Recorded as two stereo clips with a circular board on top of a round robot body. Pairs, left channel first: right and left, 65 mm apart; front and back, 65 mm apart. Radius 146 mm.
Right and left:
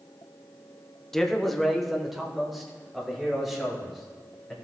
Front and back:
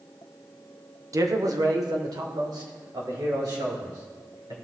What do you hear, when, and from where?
1.1 s a man speaking: 175° right, 0.9 m; by 4.5 s 175° left, 4 m